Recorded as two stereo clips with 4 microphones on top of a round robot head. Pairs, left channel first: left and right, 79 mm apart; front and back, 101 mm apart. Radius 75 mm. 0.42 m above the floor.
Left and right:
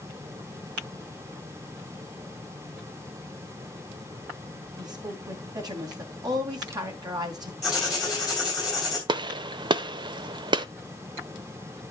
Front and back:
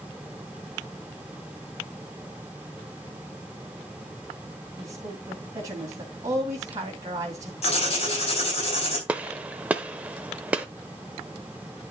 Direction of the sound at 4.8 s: 120° right.